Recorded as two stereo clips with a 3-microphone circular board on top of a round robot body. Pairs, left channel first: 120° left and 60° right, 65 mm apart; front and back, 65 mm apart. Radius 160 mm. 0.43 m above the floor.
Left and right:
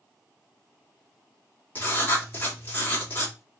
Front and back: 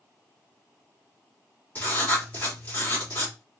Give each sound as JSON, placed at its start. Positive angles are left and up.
{"t": 1.8, "sound": "writing", "azimuth_deg": 60, "distance_m": 2.5}